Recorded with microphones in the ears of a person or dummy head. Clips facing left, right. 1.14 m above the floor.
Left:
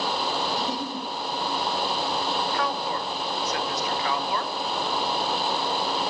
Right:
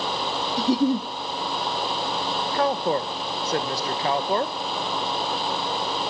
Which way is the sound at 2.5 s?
30° right (ahead or behind).